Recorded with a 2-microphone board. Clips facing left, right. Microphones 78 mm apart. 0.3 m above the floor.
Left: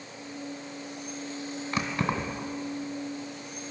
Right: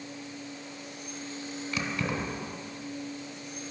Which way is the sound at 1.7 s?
35° left (ahead or behind).